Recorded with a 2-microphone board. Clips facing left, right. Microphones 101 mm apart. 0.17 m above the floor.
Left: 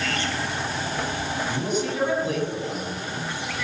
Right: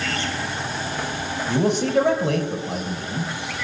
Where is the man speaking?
70° right (ahead or behind), 4 m.